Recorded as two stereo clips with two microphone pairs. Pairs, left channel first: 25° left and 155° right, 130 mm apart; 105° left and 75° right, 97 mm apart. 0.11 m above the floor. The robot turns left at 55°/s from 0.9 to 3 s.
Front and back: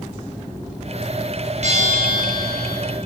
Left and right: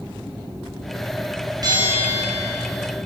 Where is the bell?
125° right, 5.5 m; by 2.7 s 175° left, 5.5 m.